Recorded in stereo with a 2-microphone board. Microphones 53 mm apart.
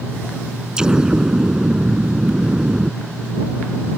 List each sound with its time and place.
0.8 s an explosion: 15° right (ahead or behind)